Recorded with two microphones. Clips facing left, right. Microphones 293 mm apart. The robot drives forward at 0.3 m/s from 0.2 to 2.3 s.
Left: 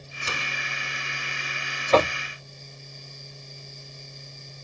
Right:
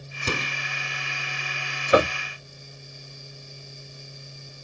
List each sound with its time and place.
0.2 s a door slam: 50° right (ahead or behind)
1.9 s knocking: 15° right (ahead or behind); by 2.2 s 10° right (ahead or behind)